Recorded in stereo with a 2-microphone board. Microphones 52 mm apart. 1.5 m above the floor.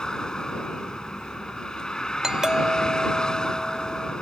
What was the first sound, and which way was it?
A vehicle, 10° left (ahead or behind).